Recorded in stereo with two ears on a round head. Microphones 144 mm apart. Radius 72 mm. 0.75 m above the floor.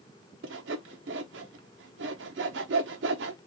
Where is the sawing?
80° right, 0.7 m.